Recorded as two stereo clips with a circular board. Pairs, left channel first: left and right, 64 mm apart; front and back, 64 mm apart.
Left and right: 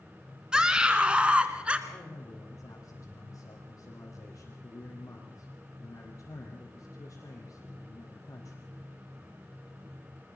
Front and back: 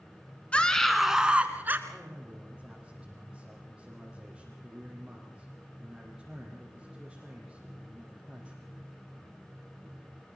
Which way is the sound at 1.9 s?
100° left.